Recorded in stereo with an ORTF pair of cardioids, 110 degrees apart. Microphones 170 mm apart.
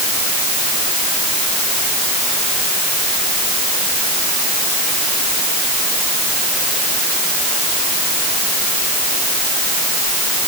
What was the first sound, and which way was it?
Only background noise.